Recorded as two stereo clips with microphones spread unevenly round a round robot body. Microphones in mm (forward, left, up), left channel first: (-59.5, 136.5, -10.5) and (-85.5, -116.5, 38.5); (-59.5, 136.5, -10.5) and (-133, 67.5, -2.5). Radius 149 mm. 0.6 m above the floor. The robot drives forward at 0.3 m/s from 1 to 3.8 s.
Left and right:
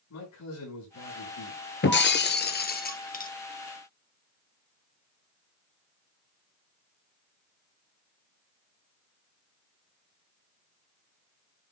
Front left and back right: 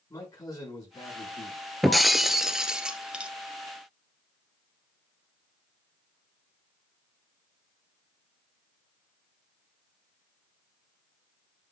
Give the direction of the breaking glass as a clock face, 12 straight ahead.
8 o'clock.